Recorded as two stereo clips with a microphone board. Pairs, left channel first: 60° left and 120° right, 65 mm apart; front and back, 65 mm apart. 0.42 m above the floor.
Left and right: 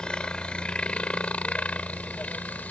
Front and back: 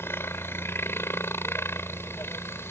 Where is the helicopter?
5° right; by 2.7 s 10° left.